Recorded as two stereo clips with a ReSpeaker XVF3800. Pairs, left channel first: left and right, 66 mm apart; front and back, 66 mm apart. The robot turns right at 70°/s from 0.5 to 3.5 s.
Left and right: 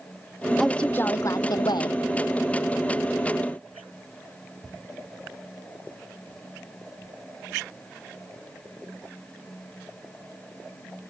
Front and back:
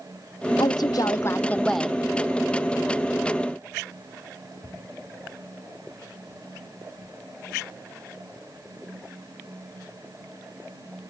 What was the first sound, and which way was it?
A woman speaking, straight ahead.